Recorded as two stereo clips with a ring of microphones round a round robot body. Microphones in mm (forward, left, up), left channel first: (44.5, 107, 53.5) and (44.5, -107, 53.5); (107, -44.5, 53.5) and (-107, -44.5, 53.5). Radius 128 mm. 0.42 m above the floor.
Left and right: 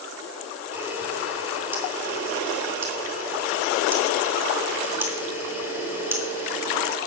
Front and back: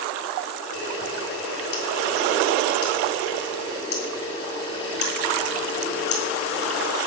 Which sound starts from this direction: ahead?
A camera shutter, at 0.7 s.